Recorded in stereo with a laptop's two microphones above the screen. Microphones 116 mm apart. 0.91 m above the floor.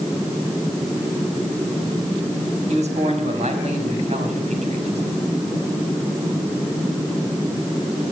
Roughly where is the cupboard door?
I don't hear a cupboard door.